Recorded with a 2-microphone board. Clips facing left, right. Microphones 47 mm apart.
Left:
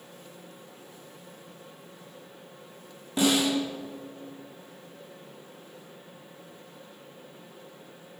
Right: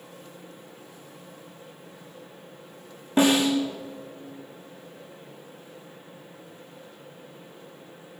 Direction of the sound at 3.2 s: 35° right (ahead or behind).